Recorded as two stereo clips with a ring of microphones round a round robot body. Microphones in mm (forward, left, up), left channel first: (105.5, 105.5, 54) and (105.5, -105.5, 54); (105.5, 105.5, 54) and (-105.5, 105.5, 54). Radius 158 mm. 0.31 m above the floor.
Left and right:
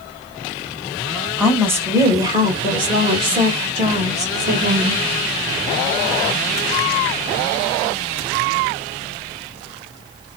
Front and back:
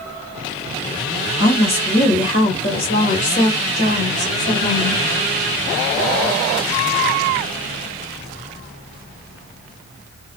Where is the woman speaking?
5° right, 2 m; by 5.0 s 60° right, 3 m.